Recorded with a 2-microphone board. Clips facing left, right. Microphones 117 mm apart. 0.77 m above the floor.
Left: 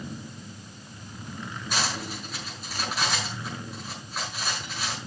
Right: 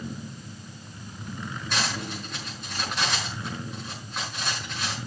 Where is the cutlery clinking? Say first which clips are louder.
Even; 5° left (ahead or behind), 5 m.